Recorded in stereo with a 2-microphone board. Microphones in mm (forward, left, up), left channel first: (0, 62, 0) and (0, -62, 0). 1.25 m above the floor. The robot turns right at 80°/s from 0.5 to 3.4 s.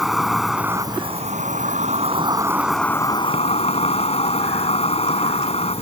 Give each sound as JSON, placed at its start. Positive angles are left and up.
{"t": 0.0, "sound": "an insect", "azimuth_deg": 180}